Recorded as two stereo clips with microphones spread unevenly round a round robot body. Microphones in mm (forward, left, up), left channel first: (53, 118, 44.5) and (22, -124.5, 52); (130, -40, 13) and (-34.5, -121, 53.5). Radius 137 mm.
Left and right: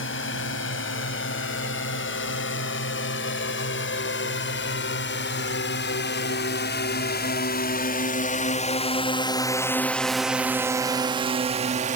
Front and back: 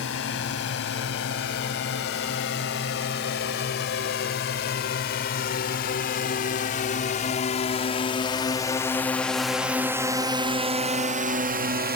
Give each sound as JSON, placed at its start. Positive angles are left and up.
{"t": 0.0, "sound": "a drone", "azimuth_deg": 45}